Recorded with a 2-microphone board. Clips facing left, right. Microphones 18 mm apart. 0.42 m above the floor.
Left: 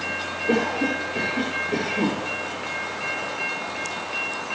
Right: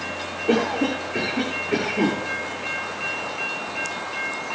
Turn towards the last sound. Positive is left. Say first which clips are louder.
# right 2 dB
turn(degrees=-80)